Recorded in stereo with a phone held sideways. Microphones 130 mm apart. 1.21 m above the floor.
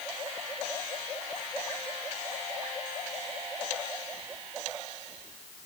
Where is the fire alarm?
No fire alarm in this recording.